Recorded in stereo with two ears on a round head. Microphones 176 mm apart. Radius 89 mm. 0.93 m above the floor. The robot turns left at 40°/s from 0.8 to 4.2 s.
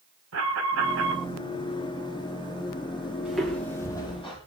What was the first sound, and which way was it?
An alarm, 85° right.